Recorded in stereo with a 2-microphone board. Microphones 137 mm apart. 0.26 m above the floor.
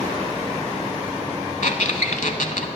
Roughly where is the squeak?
Left.